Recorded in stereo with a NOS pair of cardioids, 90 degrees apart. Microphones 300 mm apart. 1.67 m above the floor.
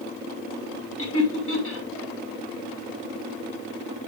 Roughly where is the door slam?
I don't hear a door slam.